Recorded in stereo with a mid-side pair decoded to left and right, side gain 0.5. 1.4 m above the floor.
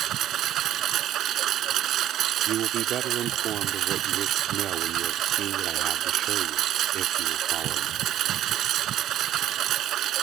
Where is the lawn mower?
65° right.